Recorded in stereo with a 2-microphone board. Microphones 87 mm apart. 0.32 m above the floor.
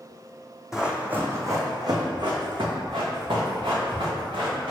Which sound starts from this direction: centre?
Running footsteps, at 0.7 s.